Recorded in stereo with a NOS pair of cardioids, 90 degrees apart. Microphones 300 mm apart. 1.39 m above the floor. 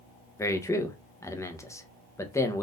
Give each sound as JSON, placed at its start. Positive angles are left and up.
{"t": 0.4, "sound": "a man speaking", "azimuth_deg": 10, "distance_m": 0.8}